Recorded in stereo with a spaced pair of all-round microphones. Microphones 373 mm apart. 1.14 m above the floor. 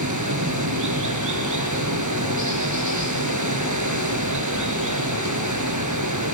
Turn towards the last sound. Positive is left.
turn(degrees=-50)  # may be behind; listen again after turning